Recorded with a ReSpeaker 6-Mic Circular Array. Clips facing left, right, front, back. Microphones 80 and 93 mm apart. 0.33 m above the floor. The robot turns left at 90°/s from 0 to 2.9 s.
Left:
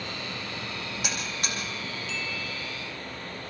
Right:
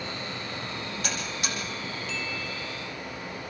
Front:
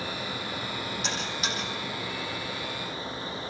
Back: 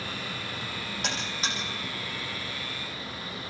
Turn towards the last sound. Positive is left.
turn(degrees=0)